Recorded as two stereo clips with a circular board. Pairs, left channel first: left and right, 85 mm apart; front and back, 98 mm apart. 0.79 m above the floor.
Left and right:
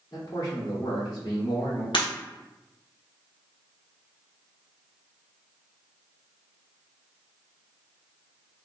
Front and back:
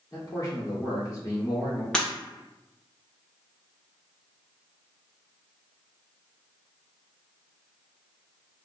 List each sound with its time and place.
0.1 s a man speaking: 55° left, 1.9 m
1.9 s breaking glass: 80° left, 1.0 m